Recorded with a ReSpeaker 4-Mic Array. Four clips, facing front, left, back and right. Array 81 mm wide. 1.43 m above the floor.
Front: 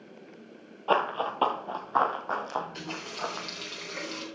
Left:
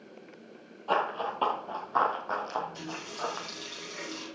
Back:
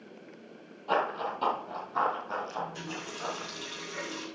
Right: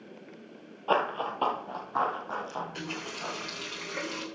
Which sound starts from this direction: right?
A running tap, at 2.6 s.